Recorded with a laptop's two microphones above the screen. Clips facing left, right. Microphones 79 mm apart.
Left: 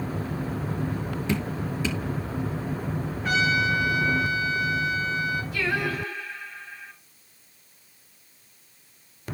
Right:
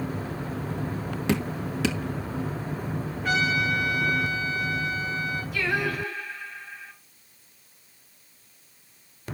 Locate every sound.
1.3 s dripping: 70° right (ahead or behind), 1.5 m
3.2 s a trumpet: centre (ahead or behind), 4.5 m
5.5 s singing: 10° right (ahead or behind), 6 m